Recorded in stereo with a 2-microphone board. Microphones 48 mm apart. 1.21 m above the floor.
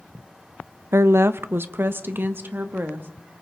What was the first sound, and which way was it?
A woman speaking, 60° right (ahead or behind).